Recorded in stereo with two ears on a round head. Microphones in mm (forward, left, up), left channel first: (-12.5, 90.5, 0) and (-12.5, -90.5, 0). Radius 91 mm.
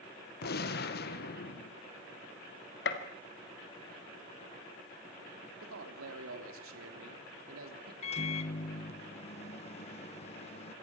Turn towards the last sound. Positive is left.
turn(degrees=30)  # may be behind; listen again after turning